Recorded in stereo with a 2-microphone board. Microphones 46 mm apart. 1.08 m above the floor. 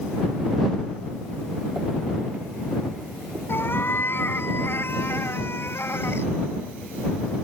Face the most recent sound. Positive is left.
turn(degrees=70)  # may be behind; listen again after turning